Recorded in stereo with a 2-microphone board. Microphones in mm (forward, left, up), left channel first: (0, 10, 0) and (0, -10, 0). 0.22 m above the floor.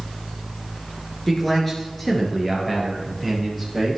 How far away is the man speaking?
About 3 m.